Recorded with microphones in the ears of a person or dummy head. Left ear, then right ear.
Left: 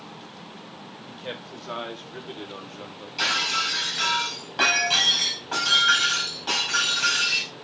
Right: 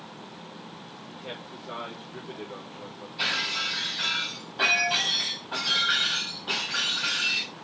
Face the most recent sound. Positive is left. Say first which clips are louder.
# left 4 dB
turn(degrees=60)  # may be behind; listen again after turning